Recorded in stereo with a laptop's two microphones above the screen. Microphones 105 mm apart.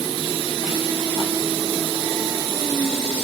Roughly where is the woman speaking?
No woman speaking in this recording.